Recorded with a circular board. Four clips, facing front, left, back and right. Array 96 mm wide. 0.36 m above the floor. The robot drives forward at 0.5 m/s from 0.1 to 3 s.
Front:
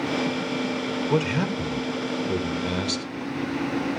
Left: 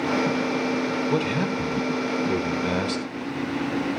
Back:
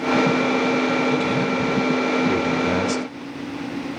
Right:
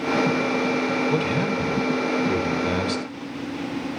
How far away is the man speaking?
About 1.0 m.